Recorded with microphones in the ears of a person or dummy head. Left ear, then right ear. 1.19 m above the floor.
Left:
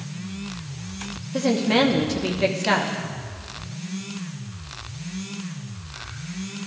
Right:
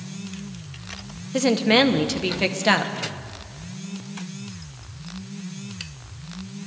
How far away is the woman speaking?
About 0.8 m.